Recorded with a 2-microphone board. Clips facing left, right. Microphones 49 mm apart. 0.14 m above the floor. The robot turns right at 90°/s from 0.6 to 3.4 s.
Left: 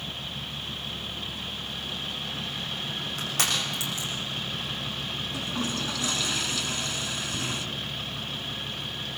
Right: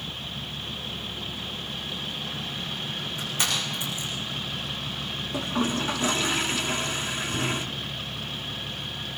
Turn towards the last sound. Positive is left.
turn(degrees=-30)  # may be behind; listen again after turning